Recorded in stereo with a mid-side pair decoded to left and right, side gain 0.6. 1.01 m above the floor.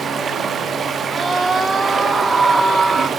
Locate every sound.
0.0 s running water: 35° right, 1.1 m
1.1 s a scream: 15° right, 1.4 m